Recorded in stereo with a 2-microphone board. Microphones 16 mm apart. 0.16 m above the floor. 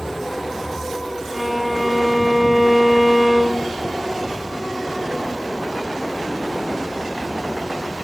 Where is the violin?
25° right (ahead or behind), 1.7 m.